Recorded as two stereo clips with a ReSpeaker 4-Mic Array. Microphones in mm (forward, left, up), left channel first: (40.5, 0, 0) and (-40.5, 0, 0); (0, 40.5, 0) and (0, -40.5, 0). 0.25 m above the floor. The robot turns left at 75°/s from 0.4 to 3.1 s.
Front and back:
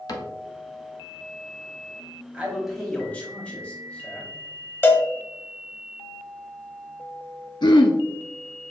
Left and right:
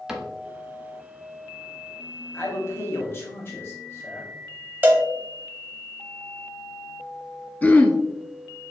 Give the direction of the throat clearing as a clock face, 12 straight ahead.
11 o'clock.